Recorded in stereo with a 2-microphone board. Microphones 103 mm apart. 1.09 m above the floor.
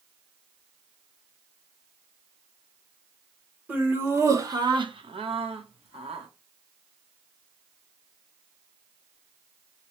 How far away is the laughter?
About 1.3 m.